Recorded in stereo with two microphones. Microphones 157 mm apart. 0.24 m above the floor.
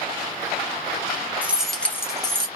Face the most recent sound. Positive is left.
turn(degrees=30)  # may be behind; listen again after turning